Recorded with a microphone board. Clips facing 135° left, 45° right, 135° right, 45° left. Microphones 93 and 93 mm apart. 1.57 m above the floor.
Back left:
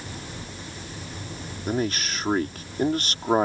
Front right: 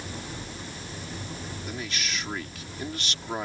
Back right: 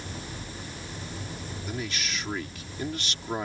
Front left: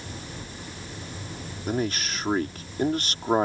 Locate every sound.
1.7 s a man speaking: 90° left